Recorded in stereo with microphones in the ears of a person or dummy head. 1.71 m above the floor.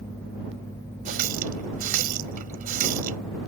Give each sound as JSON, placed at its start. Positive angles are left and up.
{"t": 1.1, "sound": "a running tap", "side_deg": -45}